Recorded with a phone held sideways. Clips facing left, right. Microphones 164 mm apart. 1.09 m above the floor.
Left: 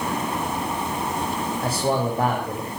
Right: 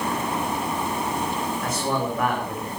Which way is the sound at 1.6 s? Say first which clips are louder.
Left 5 dB; 30° left (ahead or behind).